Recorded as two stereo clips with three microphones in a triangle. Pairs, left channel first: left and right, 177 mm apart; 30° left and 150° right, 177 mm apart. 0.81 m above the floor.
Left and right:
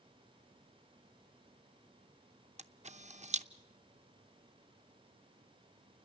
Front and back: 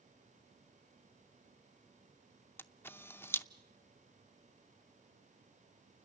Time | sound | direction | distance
2.6 | a camera shutter | 45° right | 0.6 m